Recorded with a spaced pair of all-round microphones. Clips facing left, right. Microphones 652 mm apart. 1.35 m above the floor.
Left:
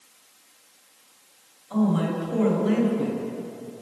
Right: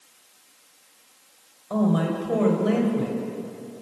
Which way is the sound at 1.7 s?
75° right (ahead or behind).